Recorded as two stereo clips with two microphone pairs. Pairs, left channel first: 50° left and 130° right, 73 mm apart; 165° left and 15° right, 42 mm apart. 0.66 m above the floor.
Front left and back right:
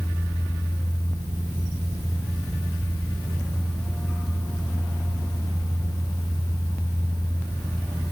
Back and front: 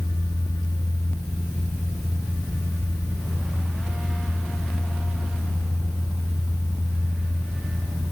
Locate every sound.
Only background noise.